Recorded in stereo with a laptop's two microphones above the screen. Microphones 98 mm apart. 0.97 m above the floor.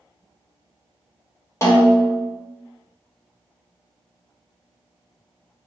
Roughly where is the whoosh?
I don't hear a whoosh.